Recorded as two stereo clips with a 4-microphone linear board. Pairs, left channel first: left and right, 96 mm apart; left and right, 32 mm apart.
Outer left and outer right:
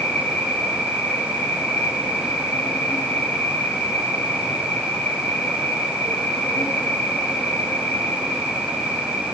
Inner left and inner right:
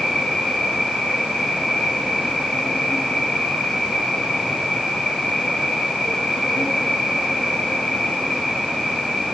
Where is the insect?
15° left (ahead or behind), 7 m.